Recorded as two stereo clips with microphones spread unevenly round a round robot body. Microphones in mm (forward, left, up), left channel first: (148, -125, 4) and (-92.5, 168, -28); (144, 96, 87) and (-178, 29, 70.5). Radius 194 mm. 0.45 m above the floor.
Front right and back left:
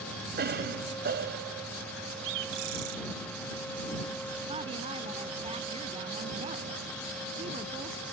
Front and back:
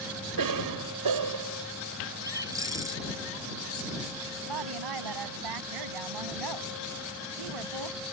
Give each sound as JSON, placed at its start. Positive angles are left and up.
{"t": 0.4, "sound": "a cough", "azimuth_deg": -165}
{"t": 2.2, "sound": "a bird", "azimuth_deg": 110}
{"t": 4.5, "sound": "a woman speaking", "azimuth_deg": -155}